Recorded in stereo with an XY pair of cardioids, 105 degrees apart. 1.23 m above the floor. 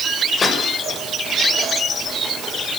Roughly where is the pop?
Ahead left.